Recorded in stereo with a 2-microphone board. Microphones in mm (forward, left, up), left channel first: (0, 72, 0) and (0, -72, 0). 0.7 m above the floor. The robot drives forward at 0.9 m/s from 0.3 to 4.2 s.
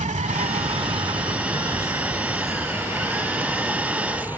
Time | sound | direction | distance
0.0 | an insect | 60° right (ahead or behind) | ?